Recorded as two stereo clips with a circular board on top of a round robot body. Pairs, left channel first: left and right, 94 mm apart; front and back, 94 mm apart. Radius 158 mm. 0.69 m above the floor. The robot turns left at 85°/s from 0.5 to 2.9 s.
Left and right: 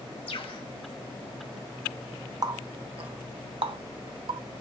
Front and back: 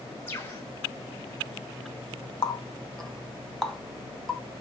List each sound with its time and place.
0.3 s a bird: 65° left, 1.1 m; by 0.6 s 55° left, 1.1 m
2.4 s a running tap: 45° right, 0.8 m; by 4.4 s 85° right, 0.8 m